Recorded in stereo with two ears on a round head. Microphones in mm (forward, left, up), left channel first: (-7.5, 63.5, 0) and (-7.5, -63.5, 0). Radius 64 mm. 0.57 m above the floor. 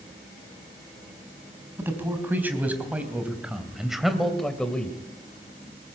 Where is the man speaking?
15° right (ahead or behind), 4 m; by 5.0 s 10° left (ahead or behind), 2.5 m.